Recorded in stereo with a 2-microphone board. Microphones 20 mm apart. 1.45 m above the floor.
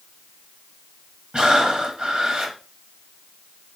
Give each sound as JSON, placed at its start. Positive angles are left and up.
{"t": 1.3, "sound": "breathing", "side_deg": -45, "distance_m": 1.3}